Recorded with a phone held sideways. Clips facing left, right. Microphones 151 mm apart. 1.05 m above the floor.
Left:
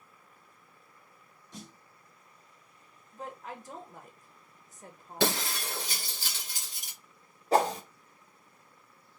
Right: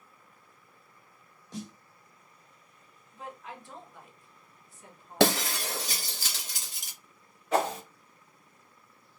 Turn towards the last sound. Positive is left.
turn(degrees=30)  # may be behind; listen again after turning